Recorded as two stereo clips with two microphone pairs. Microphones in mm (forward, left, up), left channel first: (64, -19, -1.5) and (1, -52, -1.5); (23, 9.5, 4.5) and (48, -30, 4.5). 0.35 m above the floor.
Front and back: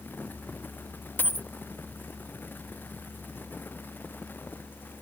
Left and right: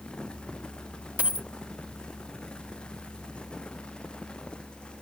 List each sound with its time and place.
1.2 s a dropped coin: 15° right, 0.6 m